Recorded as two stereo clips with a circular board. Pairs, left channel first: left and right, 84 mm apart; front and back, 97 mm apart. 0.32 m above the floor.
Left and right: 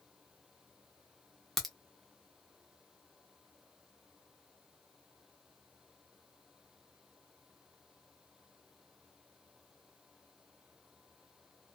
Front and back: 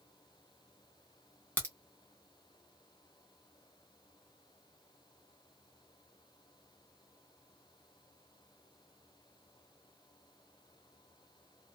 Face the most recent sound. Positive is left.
turn(degrees=0)